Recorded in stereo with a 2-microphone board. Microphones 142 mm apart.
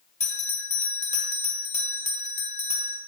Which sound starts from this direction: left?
A bell, at 0.2 s.